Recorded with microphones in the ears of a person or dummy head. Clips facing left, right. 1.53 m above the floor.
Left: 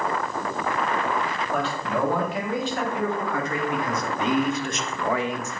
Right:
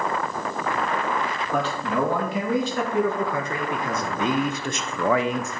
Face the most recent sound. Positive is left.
turn(degrees=-45)  # may be behind; listen again after turning